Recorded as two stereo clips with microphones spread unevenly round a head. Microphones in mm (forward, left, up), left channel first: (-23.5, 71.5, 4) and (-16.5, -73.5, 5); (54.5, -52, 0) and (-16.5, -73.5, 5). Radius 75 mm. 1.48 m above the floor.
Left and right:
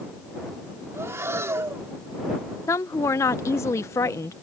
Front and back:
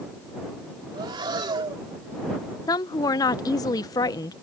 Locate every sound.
0.9 s breathing: 160° right
2.7 s a woman speaking: 25° left